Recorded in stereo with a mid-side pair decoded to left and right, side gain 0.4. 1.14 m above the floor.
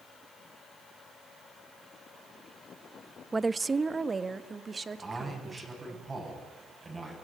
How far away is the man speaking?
About 9.5 m.